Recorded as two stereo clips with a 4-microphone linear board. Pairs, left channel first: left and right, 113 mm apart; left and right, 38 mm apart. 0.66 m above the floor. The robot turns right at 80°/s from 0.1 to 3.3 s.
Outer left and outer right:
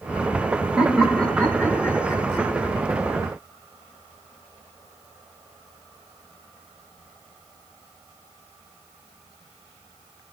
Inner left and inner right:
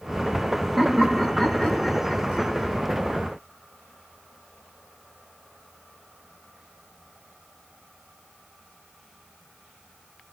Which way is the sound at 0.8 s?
10° right (ahead or behind).